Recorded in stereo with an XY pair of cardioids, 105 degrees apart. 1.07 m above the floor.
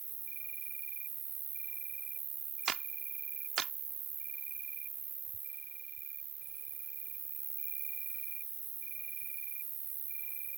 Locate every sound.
0.0 s an insect: 55° right
2.7 s a clap: 45° right